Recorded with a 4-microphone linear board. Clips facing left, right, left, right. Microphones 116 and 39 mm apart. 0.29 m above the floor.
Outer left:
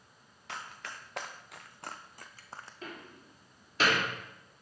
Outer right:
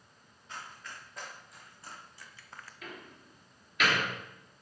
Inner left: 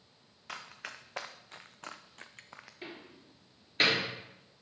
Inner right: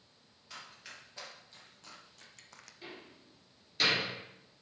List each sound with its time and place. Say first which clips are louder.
0.5 s running footsteps: outer left 2 dB, inner left 6 dB; 80° left, 1.6 m; by 2.7 s 25° left (ahead or behind), 0.7 m
2.8 s a door slam: even, inner left 2 dB; 35° left (ahead or behind), 3 m